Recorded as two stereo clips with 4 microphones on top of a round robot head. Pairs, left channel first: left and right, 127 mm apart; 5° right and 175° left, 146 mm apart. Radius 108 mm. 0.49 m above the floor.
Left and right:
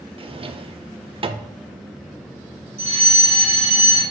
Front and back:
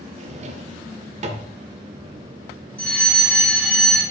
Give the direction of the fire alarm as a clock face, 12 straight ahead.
3 o'clock.